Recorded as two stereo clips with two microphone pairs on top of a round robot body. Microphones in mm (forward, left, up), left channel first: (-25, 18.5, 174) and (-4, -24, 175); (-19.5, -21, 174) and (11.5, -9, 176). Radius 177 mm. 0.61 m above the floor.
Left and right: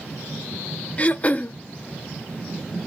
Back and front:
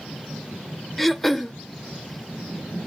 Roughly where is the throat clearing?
Behind left.